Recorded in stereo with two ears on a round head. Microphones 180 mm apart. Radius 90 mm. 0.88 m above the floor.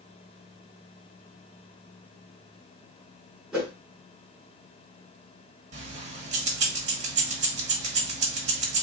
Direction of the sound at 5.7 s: 35° right (ahead or behind).